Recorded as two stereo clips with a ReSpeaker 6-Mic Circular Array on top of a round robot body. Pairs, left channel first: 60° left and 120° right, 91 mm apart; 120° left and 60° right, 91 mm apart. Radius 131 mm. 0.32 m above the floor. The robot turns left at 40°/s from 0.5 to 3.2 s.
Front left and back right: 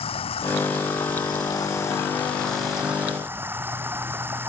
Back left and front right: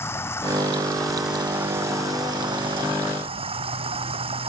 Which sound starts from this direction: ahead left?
Running water, at 0.0 s.